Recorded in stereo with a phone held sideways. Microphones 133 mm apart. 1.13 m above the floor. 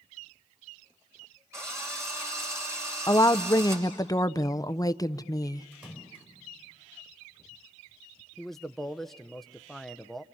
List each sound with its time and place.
1.5 s a drill: 20° right (ahead or behind), 6 m
3.1 s a woman speaking: 25° left (ahead or behind), 0.5 m
5.7 s a splash: 10° right (ahead or behind), 6 m
8.4 s a man speaking: centre (ahead or behind), 0.7 m